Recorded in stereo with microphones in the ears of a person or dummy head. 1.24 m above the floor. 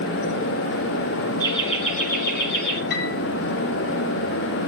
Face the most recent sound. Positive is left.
turn(degrees=50)  # may be behind; listen again after turning